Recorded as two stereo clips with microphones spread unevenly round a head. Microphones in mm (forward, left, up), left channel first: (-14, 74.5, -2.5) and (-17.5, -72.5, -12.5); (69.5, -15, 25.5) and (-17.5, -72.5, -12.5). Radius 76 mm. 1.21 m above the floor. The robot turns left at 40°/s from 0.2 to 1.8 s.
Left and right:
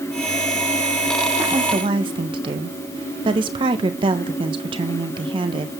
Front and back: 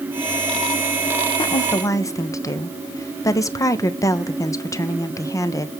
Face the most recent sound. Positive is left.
turn(degrees=-35)